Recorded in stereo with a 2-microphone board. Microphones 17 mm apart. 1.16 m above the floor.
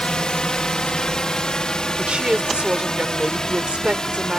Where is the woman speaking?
80° right.